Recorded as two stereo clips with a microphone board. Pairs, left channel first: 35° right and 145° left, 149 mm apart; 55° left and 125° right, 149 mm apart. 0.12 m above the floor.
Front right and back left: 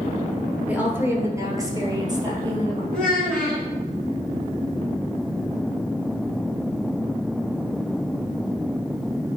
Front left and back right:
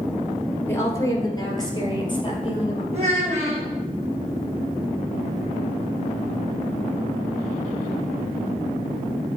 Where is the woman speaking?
90° left, 1.3 m; by 2.8 s 95° left, 2 m.